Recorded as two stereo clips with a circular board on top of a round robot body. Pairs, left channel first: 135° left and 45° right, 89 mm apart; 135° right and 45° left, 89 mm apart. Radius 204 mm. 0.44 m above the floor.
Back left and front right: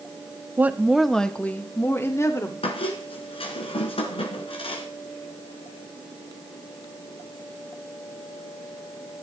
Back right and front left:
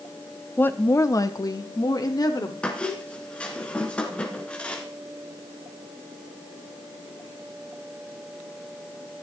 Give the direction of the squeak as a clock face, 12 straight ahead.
7 o'clock.